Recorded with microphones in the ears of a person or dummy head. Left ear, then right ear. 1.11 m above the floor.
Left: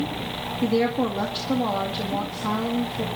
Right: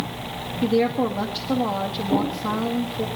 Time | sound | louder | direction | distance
0.6 | a woman speaking | right 2 dB | 5° right (ahead or behind) | 1.4 m